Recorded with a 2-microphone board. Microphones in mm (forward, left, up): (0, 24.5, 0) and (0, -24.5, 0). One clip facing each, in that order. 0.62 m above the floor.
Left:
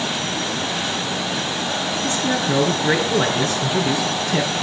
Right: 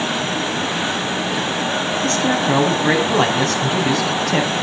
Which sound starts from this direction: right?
A man speaking, at 2.0 s.